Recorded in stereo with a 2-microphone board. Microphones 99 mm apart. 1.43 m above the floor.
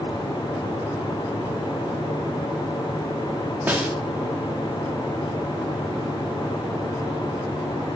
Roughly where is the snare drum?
Centre.